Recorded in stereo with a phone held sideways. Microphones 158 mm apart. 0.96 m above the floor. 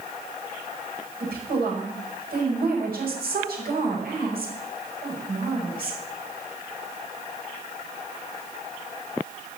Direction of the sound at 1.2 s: 70° right (ahead or behind).